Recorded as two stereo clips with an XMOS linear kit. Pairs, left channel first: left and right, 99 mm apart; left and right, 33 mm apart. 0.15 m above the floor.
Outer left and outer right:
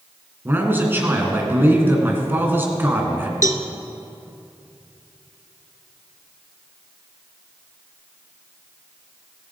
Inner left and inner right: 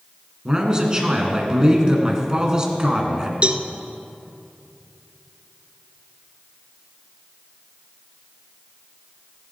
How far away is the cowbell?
About 0.7 m.